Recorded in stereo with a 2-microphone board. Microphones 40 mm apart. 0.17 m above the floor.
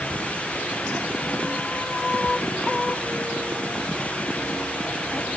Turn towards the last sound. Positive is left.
No sound to turn to.